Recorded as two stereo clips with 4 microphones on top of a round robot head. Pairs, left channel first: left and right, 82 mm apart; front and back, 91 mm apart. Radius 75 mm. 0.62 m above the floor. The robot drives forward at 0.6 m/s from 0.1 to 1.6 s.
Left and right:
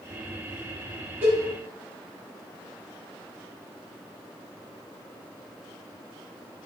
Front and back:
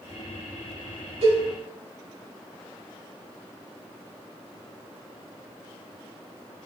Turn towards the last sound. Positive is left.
turn(degrees=-165)